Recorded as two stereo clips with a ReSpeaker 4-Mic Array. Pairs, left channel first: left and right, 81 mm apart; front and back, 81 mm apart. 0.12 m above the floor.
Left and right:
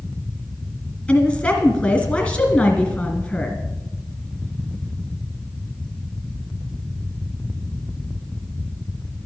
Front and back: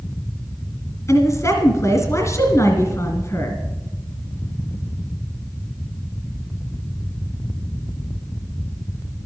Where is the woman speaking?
20° left, 2 m.